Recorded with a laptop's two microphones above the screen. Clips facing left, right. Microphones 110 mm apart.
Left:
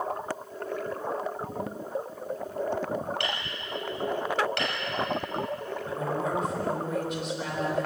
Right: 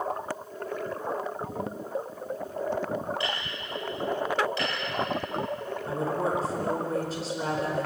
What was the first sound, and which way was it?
Hammering, 70° left (ahead or behind).